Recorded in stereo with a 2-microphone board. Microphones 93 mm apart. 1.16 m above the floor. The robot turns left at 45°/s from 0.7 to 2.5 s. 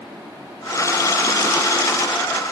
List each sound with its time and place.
Only background noise.